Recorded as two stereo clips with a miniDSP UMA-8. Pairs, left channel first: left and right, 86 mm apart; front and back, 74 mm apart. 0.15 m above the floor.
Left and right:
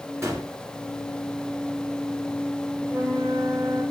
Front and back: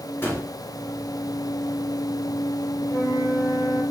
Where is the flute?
35° right, 4.5 m.